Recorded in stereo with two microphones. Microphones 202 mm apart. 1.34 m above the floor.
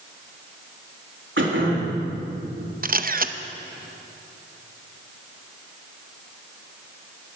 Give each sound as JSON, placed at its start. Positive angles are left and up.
{"t": 1.4, "sound": "throat clearing", "side_deg": -75, "distance_m": 3.0}
{"t": 2.8, "sound": "a camera shutter", "side_deg": -45, "distance_m": 0.7}